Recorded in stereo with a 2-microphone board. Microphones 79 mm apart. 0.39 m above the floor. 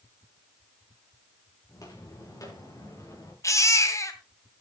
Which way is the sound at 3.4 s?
40° left (ahead or behind).